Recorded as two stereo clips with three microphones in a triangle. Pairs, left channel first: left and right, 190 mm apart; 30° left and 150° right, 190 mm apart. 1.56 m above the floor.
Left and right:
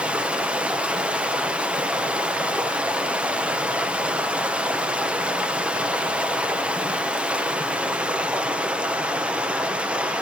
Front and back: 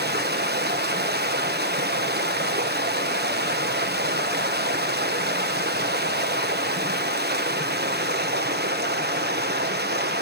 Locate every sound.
0.0 s running water: 175° right, 1.2 m